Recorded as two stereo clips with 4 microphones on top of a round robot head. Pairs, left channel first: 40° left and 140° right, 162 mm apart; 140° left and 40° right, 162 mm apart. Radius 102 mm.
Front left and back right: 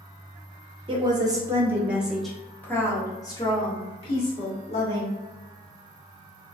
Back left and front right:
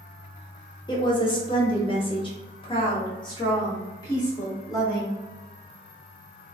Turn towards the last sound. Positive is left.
turn(degrees=75)